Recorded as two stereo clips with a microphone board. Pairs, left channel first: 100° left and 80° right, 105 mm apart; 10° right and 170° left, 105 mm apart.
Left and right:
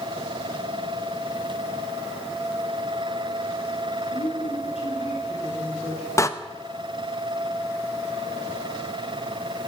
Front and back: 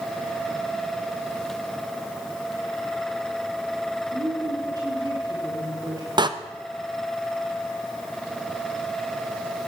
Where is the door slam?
150° left, 0.8 m.